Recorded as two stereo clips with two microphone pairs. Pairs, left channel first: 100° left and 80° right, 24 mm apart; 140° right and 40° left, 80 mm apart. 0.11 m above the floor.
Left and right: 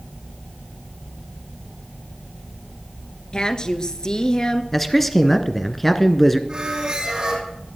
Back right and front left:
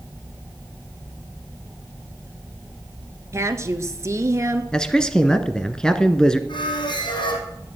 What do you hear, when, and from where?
3.3 s a woman speaking: 70° left, 1.4 m
4.7 s a man speaking: 165° left, 1.1 m
6.5 s a squeak: 135° right, 3.5 m